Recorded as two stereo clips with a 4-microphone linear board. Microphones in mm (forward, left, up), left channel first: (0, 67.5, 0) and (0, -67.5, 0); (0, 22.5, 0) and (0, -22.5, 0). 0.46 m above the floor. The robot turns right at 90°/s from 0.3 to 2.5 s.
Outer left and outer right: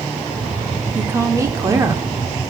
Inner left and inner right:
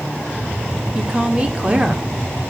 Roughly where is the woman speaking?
Centre.